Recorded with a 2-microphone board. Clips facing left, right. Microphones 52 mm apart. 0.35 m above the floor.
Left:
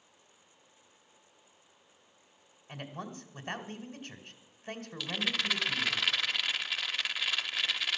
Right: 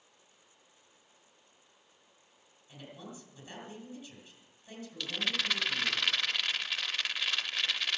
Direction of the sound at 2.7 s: 60° left (ahead or behind).